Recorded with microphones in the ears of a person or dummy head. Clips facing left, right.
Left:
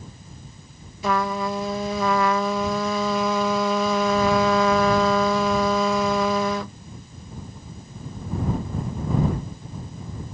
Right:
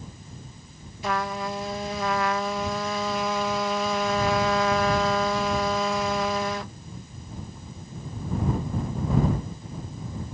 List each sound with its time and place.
1.0 s a trumpet: 70° left (ahead or behind)